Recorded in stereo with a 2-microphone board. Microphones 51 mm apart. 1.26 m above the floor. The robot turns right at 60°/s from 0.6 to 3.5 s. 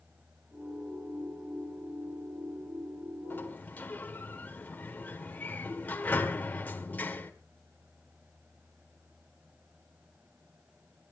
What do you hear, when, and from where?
3.3 s a sliding door: 45° left (ahead or behind), 1.7 m; by 7.3 s 35° left (ahead or behind), 1.7 m